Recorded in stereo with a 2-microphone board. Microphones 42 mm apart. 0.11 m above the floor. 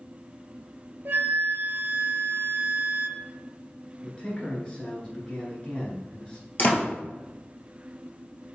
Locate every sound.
1.1 s a flute: 55° right (ahead or behind), 0.5 m
4.0 s a man speaking: 25° left (ahead or behind), 1.3 m
6.6 s a door slam: 40° left (ahead or behind), 1.5 m